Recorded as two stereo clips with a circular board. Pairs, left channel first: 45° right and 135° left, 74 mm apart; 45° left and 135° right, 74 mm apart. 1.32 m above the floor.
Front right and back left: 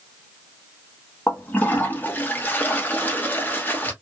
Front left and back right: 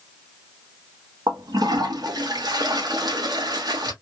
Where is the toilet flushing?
110° right, 0.9 m.